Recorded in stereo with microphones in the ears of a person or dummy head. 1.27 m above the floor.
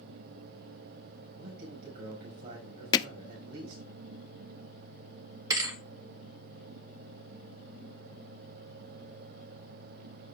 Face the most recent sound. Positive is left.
turn(degrees=-25)  # may be behind; listen again after turning